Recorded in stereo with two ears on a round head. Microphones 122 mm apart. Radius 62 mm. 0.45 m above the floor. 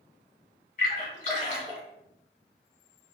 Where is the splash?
60° left (ahead or behind), 1.8 m.